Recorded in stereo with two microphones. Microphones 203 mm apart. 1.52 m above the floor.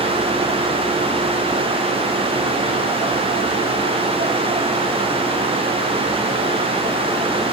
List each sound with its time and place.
Only background noise.